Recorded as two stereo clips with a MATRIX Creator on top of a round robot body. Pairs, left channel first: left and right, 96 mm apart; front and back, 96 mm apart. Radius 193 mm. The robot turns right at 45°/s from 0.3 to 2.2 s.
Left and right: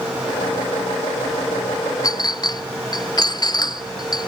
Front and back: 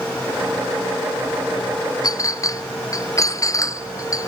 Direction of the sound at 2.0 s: 45° left.